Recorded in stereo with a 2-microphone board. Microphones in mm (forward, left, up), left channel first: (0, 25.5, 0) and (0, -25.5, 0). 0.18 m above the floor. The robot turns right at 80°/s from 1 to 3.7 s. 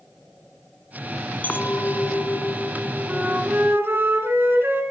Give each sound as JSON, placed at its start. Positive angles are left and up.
{"t": 1.4, "sound": "a clink", "azimuth_deg": 55, "distance_m": 0.9}
{"t": 3.1, "sound": "a flute", "azimuth_deg": -150, "distance_m": 1.9}